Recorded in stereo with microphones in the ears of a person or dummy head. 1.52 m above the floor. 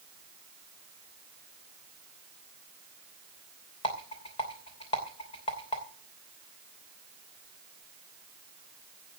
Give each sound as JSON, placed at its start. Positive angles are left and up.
{"t": 3.8, "sound": "a rattle", "side_deg": 30, "distance_m": 3.0}